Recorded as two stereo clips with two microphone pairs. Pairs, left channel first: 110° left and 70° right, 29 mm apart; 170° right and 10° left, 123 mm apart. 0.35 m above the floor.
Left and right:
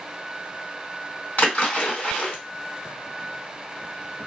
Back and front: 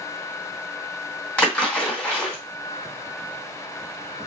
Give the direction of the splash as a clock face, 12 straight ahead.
8 o'clock.